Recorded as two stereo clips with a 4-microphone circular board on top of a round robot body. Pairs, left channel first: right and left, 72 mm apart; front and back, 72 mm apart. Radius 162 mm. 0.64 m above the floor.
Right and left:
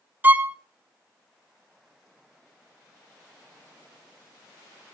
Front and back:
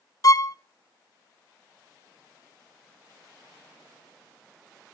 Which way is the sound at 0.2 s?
30° left.